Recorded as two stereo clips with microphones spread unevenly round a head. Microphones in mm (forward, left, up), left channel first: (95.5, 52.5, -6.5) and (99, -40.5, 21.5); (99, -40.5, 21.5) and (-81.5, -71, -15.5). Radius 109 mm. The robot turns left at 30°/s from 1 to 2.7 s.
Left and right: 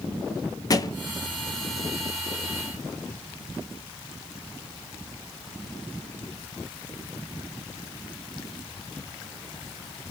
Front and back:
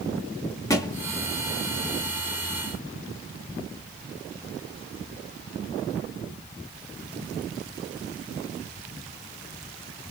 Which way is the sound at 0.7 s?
45° left.